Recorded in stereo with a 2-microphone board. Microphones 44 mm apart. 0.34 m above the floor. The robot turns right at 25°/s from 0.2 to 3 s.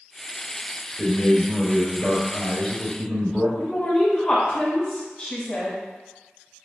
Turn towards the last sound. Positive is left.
turn(degrees=25)  # may be behind; listen again after turning